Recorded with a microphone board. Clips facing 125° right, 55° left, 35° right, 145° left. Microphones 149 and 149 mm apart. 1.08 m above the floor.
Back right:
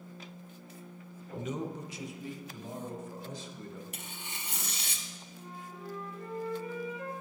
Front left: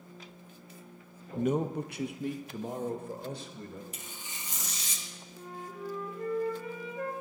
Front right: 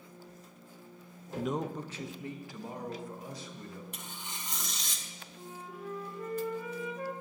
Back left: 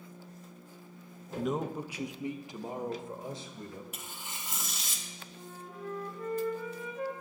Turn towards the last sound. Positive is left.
turn(degrees=45)